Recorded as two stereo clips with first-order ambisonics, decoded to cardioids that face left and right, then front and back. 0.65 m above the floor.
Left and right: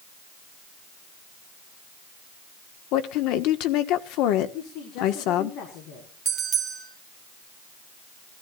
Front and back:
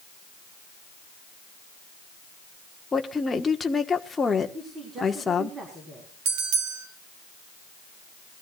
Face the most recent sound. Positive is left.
turn(degrees=-160)